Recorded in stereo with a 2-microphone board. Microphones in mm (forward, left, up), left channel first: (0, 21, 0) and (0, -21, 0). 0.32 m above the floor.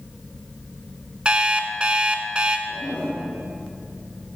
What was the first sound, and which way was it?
An alarm clock, 25° right (ahead or behind).